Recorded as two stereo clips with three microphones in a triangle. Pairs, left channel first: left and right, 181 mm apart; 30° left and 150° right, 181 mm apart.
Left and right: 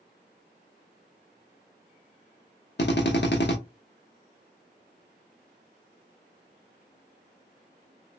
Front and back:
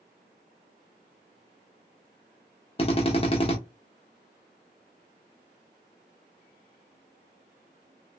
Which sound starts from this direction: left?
A drill, at 2.8 s.